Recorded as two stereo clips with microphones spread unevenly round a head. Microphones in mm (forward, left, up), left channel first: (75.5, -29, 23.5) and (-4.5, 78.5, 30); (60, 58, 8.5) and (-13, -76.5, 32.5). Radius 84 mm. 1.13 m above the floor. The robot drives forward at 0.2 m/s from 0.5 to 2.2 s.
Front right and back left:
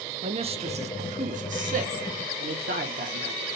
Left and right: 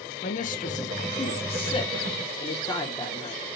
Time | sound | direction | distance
0.2 | a man speaking | 85° left | 0.6 m